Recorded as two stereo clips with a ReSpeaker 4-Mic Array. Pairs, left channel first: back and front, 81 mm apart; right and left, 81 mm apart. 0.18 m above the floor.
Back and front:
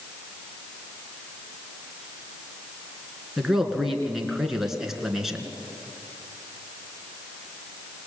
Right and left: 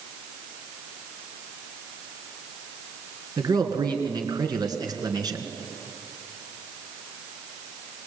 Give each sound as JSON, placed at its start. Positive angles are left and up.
{"t": 3.4, "sound": "a man speaking", "azimuth_deg": 85, "distance_m": 3.0}